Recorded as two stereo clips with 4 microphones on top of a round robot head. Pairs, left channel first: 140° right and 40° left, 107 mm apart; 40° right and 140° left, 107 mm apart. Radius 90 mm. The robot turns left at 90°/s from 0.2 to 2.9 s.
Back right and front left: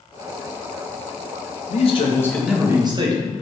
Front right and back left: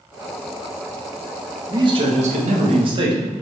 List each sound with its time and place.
1.7 s a man speaking: 160° right, 1.5 m; by 3.4 s 90° left, 1.5 m